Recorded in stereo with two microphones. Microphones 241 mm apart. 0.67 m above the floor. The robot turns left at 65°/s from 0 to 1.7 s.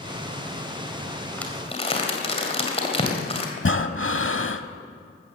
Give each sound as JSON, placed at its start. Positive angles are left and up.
{"t": 1.4, "sound": "crumpling", "side_deg": 5, "distance_m": 2.0}
{"t": 3.6, "sound": "breathing", "side_deg": 50, "distance_m": 0.8}